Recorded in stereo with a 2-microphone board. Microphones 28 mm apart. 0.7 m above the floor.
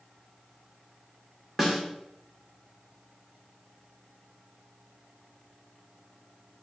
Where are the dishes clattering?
No dishes clattering in this recording.